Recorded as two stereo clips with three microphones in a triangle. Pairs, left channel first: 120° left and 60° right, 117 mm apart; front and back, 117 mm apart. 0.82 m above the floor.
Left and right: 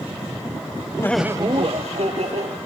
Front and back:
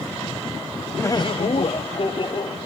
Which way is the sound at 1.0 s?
65° left.